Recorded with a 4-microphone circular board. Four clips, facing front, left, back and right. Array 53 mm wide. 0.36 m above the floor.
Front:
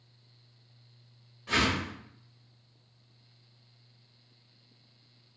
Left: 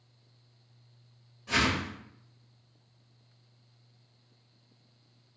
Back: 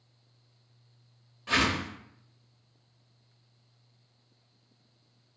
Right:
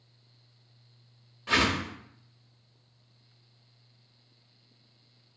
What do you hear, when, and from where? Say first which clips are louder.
1.5 s a whoosh: right 2 dB, back 1 dB; 115° right, 0.5 m